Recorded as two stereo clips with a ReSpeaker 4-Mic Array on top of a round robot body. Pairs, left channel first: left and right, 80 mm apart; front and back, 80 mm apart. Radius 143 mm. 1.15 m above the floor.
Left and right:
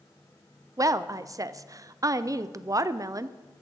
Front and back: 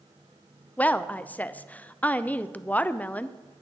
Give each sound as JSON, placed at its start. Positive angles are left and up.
{"t": 0.8, "sound": "a woman speaking", "azimuth_deg": -65, "distance_m": 0.6}